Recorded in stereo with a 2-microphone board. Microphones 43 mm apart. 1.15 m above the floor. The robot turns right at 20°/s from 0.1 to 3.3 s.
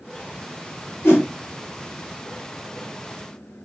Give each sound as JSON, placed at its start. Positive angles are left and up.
{"t": 1.0, "sound": "a whoosh", "side_deg": 60, "distance_m": 1.3}